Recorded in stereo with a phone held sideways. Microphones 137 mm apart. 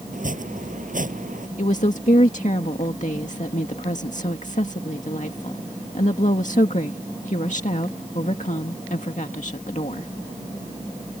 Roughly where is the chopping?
Right.